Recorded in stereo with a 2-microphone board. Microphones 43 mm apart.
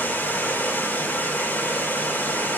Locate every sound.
0.0 s running water: 45° left (ahead or behind), 3 m